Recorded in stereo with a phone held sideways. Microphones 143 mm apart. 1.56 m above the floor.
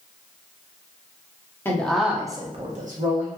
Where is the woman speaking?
15° left (ahead or behind), 0.7 m; by 3.3 s 80° right, 0.9 m.